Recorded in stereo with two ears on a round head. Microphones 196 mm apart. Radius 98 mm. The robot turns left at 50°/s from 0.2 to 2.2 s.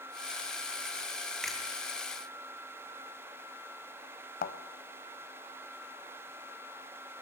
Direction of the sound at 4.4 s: 40° left (ahead or behind).